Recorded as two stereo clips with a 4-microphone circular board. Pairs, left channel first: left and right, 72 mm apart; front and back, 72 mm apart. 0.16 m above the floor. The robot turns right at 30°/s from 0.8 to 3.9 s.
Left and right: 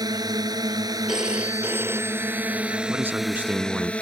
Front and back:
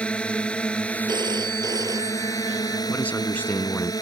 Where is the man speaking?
55° right; by 3.9 s 25° right.